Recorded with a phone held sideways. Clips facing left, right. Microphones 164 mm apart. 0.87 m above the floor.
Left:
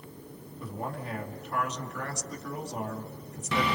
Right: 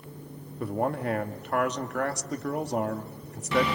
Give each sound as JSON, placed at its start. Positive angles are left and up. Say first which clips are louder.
{"t": 0.6, "sound": "a man speaking", "louder": "right 9 dB", "side_deg": -60, "distance_m": 1.9}